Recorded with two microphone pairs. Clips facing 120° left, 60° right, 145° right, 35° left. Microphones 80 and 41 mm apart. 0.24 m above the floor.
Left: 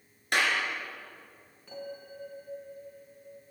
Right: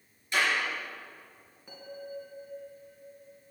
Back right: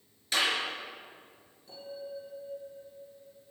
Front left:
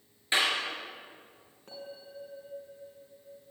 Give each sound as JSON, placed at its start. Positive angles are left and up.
{"t": 0.3, "sound": "a clap", "azimuth_deg": 95, "distance_m": 3.0}
{"t": 1.7, "sound": "a bell", "azimuth_deg": 10, "distance_m": 3.0}